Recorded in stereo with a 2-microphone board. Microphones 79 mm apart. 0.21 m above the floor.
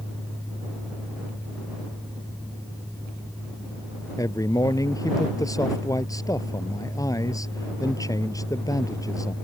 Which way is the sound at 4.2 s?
45° left (ahead or behind).